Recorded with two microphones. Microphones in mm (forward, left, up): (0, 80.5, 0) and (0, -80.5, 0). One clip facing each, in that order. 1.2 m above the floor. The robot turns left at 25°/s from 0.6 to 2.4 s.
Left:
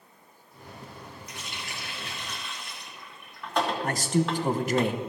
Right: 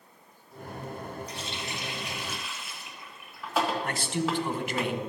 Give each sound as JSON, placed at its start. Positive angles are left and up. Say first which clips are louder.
{"t": 1.3, "sound": "a running tap", "louder": "right 4 dB", "side_deg": -30, "distance_m": 1.5}
{"t": 3.8, "sound": "a man speaking", "louder": "left 4 dB", "side_deg": 40, "distance_m": 0.8}